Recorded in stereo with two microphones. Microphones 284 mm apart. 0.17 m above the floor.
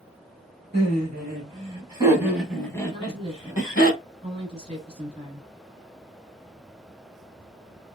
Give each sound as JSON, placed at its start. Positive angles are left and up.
{"t": 0.7, "sound": "laughter", "side_deg": -40, "distance_m": 1.3}
{"t": 2.9, "sound": "a woman speaking", "side_deg": -20, "distance_m": 1.0}